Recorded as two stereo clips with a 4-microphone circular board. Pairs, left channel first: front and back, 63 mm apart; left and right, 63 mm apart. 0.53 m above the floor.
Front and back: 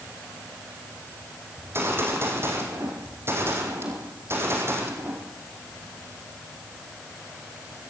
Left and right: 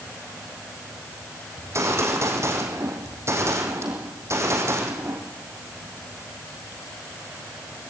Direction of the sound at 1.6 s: 130° right.